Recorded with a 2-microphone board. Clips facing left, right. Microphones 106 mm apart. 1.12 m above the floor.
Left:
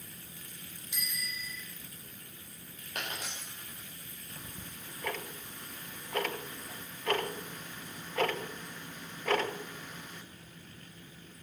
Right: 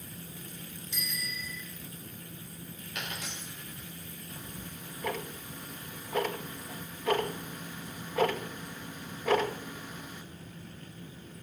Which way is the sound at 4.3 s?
10° right (ahead or behind).